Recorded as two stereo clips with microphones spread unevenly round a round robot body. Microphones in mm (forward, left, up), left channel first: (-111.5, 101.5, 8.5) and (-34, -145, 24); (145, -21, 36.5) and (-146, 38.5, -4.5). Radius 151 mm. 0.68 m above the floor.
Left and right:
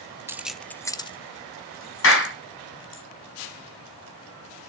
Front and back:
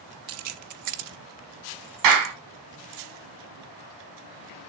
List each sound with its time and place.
0.3 s keys jangling: 155° right, 0.8 m; by 3.0 s 150° left, 1.7 m
2.0 s a clap: 145° left, 4.5 m